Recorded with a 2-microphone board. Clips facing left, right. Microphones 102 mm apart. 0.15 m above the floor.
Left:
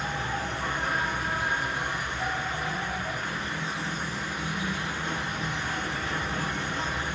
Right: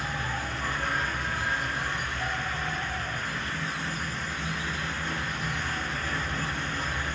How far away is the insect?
About 0.8 m.